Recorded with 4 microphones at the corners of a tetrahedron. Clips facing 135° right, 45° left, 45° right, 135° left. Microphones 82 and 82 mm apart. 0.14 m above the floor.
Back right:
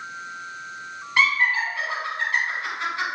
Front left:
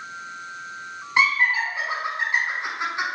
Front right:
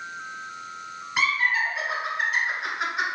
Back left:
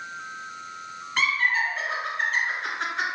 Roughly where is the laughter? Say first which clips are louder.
Front left 1 dB, even; ahead.